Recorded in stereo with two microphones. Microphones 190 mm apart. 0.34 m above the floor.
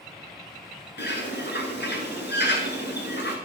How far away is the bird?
About 1.4 m.